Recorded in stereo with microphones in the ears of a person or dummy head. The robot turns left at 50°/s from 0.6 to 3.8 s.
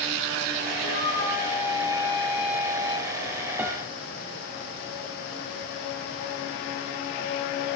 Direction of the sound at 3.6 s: 5° right (ahead or behind).